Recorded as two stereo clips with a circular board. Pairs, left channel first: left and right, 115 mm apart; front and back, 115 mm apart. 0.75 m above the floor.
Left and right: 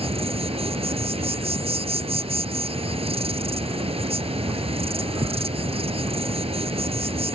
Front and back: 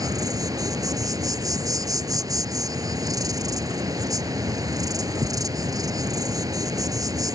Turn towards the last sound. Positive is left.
turn(degrees=-120)